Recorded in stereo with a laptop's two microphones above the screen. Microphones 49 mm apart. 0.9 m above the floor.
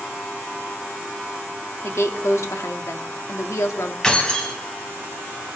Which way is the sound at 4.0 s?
20° left (ahead or behind).